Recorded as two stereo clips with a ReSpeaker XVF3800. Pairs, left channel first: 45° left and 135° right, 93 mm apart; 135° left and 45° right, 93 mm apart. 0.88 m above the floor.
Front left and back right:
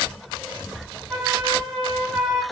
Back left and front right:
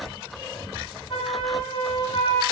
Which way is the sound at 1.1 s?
140° left.